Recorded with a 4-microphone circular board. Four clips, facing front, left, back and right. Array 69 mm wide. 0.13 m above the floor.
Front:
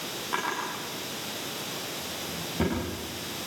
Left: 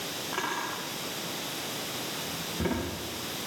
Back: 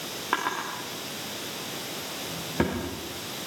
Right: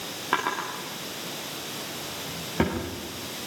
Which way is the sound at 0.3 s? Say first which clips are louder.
Right 6 dB, back 2 dB; 130° right.